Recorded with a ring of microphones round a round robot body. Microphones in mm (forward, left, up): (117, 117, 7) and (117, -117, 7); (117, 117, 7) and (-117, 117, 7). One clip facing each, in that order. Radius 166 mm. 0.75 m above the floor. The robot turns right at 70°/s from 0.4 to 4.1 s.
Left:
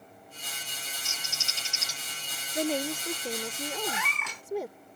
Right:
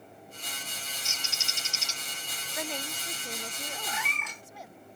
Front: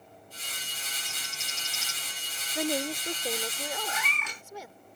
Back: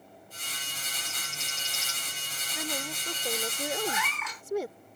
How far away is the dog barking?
No dog barking in this recording.